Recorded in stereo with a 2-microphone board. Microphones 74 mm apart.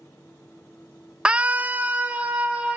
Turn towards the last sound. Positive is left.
turn(degrees=-20)  # may be behind; listen again after turning